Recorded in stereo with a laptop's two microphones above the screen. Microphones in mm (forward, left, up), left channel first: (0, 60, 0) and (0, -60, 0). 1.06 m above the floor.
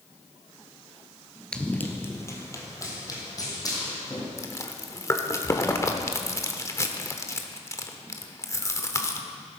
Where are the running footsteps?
5° left (ahead or behind), 1.1 m; by 4.3 s 30° left (ahead or behind), 3.5 m.